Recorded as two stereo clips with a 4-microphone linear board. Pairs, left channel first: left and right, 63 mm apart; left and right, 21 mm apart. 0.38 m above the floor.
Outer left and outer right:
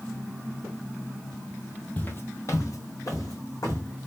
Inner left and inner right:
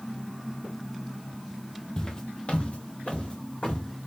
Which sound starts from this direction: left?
Footsteps, at 2.0 s.